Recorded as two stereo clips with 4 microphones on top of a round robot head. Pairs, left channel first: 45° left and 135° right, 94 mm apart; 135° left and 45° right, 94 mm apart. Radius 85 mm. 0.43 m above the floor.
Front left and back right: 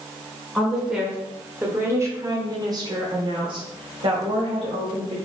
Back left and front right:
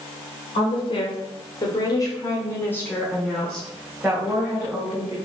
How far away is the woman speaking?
About 1.7 m.